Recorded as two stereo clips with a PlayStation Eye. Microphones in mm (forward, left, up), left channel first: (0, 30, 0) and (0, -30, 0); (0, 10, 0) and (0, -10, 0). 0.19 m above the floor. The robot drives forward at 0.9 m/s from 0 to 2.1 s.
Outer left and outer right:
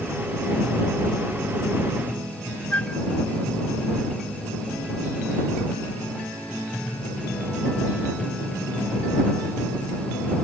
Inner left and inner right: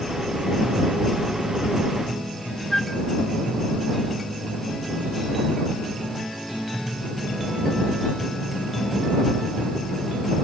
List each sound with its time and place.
2.7 s a flute: 25° left (ahead or behind)